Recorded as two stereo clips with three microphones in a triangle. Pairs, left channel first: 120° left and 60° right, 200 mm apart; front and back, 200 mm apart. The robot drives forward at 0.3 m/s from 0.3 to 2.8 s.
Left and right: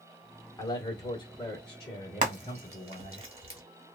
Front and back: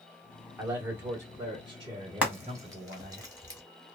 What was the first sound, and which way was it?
A man speaking, 105° left.